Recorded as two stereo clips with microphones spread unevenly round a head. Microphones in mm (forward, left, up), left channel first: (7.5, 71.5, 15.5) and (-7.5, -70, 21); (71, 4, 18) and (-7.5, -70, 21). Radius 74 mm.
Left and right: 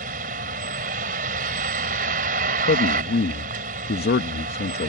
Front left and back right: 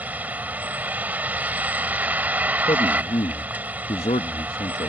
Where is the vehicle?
60° right.